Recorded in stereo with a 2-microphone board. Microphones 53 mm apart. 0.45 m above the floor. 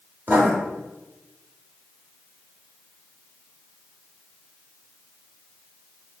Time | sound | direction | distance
0.3 | writing | 40° right (ahead or behind) | 0.9 m